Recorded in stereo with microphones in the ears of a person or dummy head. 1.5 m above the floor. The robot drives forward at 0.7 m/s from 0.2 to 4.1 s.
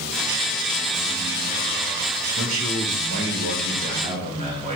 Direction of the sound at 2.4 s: 75° right (ahead or behind).